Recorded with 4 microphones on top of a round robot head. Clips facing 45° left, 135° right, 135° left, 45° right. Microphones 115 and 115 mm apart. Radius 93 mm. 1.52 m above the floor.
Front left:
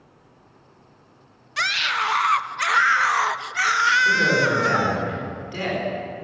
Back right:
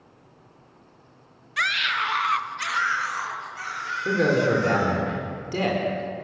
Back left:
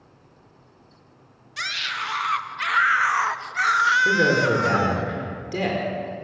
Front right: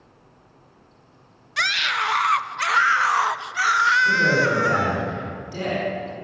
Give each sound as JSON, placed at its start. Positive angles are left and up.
{"t": 1.6, "sound": "a scream", "azimuth_deg": -15, "distance_m": 1.4}
{"t": 4.0, "sound": "a man speaking", "azimuth_deg": 170, "distance_m": 4.5}